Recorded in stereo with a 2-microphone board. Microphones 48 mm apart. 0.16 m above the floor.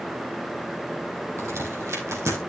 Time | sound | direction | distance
1.4 | a crack | 80° right | 3 m